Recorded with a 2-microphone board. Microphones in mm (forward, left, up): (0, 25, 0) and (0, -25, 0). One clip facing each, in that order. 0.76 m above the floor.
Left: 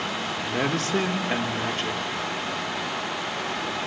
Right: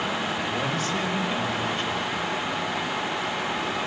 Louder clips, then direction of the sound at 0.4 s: Left 1 dB; 70° left (ahead or behind).